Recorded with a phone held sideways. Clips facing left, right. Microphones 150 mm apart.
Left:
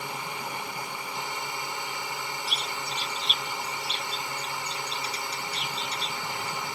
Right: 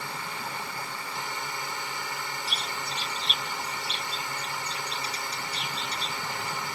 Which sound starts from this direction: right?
A bird, at 2.5 s.